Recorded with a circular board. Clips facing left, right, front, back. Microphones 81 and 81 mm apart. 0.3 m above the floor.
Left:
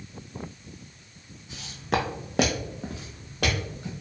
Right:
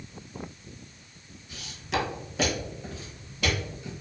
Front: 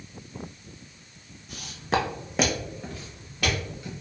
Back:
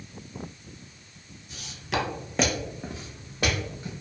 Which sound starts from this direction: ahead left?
Footsteps, at 1.5 s.